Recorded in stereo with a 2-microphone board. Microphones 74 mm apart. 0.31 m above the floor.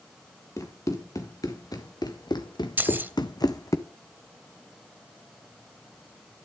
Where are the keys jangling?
25° right (ahead or behind), 0.8 m.